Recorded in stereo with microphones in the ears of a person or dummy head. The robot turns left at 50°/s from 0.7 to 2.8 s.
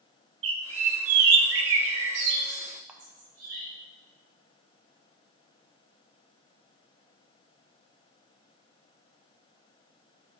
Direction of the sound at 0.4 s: 35° right (ahead or behind).